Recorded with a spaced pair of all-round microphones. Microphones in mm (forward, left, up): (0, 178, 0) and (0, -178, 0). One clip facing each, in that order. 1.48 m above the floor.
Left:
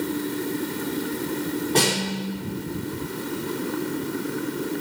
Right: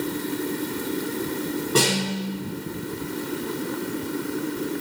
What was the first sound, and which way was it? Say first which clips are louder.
A snare drum: right 4 dB; 15° right (ahead or behind).